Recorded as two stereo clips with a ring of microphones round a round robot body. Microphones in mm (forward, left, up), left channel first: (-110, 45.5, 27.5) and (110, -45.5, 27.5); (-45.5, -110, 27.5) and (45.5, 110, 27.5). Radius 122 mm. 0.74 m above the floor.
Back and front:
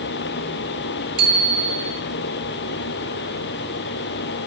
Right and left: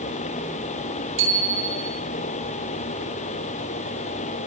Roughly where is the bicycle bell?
Ahead left.